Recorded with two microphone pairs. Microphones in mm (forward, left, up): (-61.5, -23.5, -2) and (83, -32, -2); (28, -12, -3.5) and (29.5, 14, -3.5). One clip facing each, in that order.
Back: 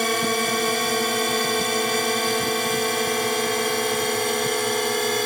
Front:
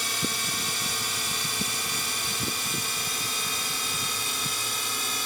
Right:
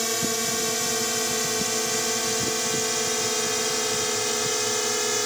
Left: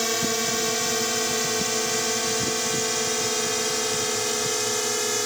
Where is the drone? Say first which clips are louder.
Back 12 dB, left 2 dB; 170° left; by 5.3 s 175° right.